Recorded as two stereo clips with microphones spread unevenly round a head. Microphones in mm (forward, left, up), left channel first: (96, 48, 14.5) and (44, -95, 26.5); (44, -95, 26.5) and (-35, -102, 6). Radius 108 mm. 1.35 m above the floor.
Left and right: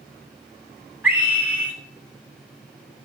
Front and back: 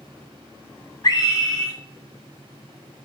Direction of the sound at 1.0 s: 30° right.